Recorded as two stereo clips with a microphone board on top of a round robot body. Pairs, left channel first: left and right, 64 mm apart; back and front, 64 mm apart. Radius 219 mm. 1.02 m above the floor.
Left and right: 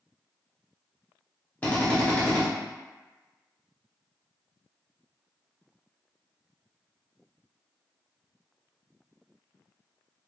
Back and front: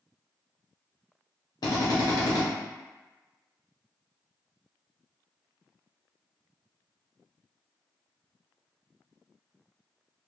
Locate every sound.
1.6 s a drill: 160° left, 0.8 m